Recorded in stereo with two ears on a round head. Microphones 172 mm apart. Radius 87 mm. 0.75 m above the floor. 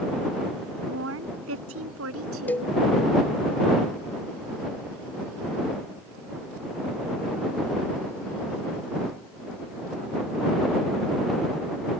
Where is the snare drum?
No snare drum in this recording.